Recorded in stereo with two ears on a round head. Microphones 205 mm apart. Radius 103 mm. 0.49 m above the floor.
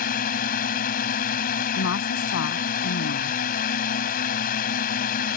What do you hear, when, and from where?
0.0 s a drone: 40° left (ahead or behind)
1.8 s a woman speaking: 60° left (ahead or behind)